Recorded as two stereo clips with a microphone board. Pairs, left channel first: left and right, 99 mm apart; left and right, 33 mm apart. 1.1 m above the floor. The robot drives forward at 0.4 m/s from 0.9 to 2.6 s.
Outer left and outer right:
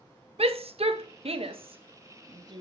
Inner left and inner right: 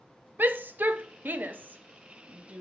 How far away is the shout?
About 0.8 m.